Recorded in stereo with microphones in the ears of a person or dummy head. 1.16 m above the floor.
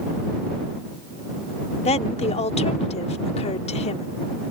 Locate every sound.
1.9 s a woman speaking: 35° left (ahead or behind)